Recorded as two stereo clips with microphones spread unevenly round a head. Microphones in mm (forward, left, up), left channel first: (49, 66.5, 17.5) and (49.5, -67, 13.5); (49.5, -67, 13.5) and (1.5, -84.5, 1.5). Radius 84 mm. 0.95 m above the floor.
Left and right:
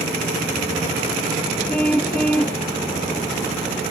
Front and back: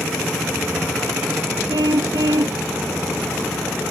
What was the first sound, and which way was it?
A car horn, 175° left.